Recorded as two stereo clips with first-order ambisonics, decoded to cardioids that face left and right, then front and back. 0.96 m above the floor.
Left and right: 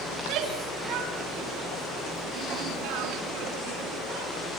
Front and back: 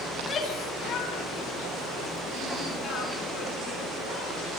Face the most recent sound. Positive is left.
turn(degrees=-80)